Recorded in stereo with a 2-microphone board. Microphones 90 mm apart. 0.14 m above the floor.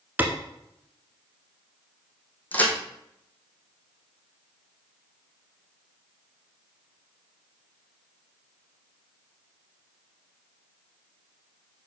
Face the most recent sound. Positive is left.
turn(degrees=20)  # may be behind; listen again after turning